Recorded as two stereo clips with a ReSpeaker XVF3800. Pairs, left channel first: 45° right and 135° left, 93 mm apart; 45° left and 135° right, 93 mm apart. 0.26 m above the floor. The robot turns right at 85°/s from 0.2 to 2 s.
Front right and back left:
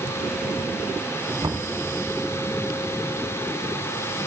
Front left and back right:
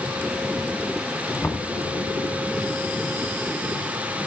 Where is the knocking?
105° left, 2 m; by 1.8 s 135° left, 2 m.